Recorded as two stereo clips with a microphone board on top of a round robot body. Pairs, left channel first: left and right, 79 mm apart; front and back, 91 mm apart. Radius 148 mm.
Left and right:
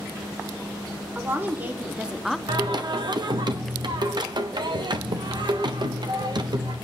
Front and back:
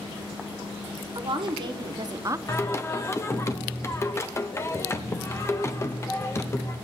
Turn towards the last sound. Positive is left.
turn(degrees=-60)